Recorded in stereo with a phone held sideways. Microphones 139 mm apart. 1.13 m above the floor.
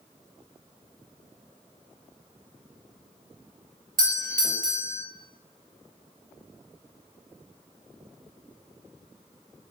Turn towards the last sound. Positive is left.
turn(degrees=-75)  # may be behind; listen again after turning